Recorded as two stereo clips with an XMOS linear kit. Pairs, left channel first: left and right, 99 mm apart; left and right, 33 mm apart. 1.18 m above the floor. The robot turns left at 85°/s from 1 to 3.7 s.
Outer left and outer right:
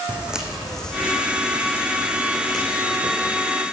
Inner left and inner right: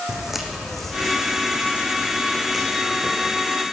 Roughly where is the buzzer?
I don't hear a buzzer.